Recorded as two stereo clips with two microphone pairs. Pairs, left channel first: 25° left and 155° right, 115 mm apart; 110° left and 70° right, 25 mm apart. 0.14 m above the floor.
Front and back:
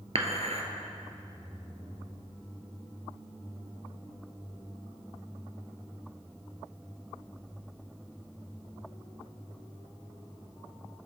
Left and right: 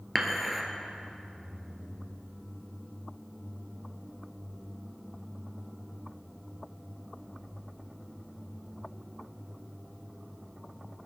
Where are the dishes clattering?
155° right, 1.7 m.